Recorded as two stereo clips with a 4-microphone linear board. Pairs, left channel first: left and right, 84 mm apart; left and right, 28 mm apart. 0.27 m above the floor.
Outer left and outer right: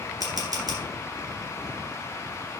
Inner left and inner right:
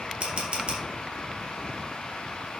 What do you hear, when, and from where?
0.2 s a camera shutter: 45° right (ahead or behind), 3 m